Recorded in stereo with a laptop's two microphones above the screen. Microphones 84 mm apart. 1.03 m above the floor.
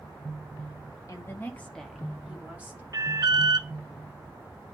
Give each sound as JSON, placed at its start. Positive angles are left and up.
{"t": 1.1, "sound": "a woman speaking", "side_deg": 40, "distance_m": 1.2}
{"t": 2.9, "sound": "an alarm", "side_deg": -50, "distance_m": 0.8}